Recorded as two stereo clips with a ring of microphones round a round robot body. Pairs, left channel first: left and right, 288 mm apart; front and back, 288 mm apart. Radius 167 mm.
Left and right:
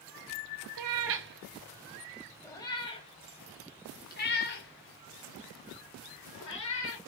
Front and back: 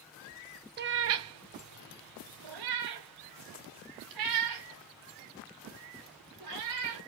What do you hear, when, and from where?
0.8 s a cat meowing: 125° right, 0.7 m; by 7.0 s 145° left, 3 m